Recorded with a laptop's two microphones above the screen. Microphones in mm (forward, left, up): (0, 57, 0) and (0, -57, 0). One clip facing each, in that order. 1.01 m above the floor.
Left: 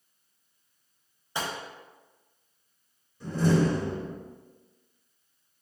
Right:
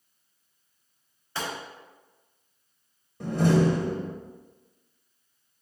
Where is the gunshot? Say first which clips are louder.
Even; 15° left (ahead or behind), 1.2 m.